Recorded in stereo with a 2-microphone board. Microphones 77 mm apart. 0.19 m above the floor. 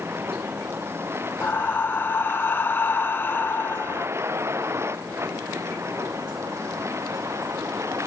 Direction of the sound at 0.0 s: 30° right (ahead or behind).